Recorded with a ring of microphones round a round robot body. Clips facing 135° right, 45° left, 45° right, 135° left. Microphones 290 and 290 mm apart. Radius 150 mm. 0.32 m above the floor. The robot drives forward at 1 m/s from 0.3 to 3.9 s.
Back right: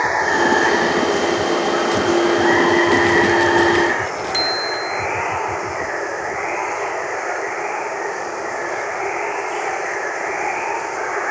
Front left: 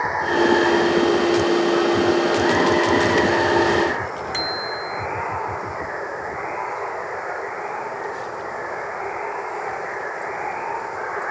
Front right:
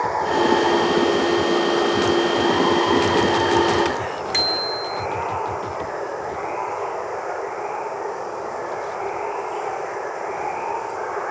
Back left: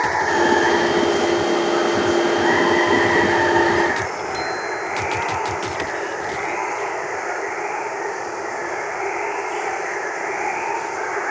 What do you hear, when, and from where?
0.0 s running water: 170° right; by 11.3 s 175° right
4.3 s a bicycle bell: 65° right